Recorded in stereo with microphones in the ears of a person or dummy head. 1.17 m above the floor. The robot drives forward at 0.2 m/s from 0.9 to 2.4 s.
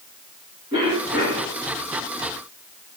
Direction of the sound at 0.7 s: 20° right (ahead or behind).